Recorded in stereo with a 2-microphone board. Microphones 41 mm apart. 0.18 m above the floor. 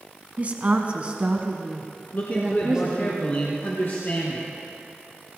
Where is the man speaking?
50° left (ahead or behind), 2 m.